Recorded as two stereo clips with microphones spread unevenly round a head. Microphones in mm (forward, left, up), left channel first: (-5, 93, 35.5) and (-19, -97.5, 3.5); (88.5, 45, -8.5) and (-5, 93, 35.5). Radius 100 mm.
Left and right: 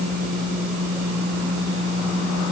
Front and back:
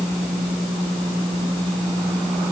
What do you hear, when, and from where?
Only background noise.